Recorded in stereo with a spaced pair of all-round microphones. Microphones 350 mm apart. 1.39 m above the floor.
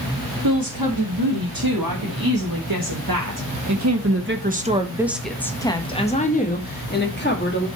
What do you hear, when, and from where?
0.4 s a woman speaking: 75° right (ahead or behind), 3 m; by 7.7 s 35° left (ahead or behind), 2.5 m